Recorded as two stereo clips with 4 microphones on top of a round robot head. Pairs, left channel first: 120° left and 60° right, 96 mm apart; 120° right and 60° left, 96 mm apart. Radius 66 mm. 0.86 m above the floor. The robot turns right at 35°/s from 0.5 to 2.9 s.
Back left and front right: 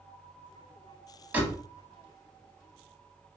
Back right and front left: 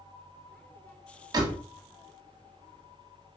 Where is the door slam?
10° left, 0.9 m; by 1.6 s 20° left, 0.9 m.